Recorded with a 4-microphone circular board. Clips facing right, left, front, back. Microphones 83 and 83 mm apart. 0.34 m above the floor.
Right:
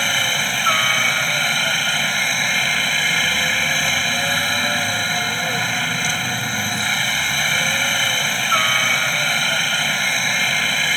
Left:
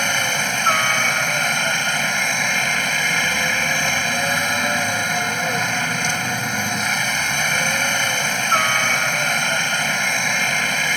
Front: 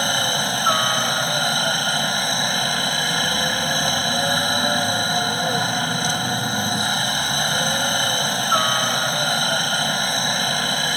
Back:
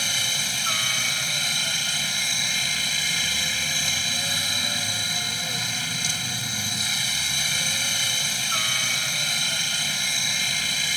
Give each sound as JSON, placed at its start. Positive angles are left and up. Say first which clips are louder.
{"t": 0.0, "sound": "a helicopter", "louder": "left 1 dB, front 10 dB", "azimuth_deg": 10}